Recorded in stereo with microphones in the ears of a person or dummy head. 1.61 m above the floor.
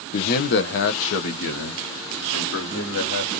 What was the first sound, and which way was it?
A man speaking, 40° left (ahead or behind).